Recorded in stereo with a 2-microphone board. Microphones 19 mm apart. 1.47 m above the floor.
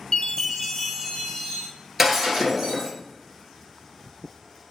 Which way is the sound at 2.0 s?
15° right (ahead or behind).